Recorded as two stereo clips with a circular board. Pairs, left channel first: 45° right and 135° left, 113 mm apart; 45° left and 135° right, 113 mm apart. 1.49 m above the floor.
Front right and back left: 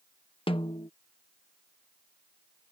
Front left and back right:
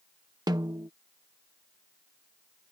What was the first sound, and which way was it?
A snare drum, 80° right.